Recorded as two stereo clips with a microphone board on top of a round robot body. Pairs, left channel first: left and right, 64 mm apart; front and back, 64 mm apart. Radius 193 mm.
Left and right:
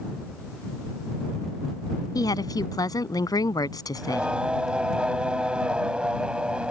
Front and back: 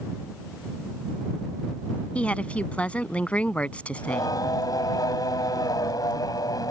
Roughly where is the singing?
Ahead.